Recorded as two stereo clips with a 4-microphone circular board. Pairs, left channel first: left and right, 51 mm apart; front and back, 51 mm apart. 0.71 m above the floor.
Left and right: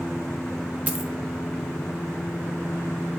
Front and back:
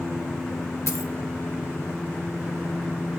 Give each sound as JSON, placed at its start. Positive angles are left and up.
{"t": 0.9, "sound": "a dropped coin", "azimuth_deg": -25, "distance_m": 0.8}